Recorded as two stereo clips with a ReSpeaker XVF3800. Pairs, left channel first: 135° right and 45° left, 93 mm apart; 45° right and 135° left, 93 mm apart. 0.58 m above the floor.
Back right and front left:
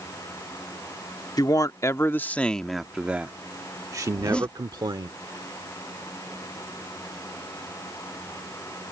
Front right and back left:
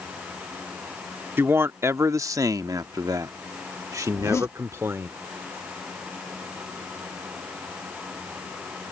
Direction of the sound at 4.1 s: 70° right.